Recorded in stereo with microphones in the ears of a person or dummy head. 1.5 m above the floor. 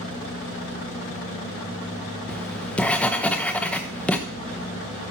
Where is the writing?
5° left (ahead or behind), 0.8 m.